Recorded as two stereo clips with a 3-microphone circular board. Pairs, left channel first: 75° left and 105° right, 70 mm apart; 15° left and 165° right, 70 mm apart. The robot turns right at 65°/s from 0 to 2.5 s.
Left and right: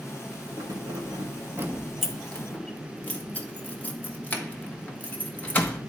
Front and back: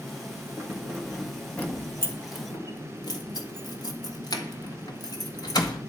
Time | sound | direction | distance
0.6 | keys jangling | 120° right | 1.7 m